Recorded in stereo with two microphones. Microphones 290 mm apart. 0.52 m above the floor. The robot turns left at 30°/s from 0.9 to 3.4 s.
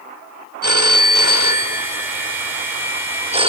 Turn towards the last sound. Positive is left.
turn(degrees=-160)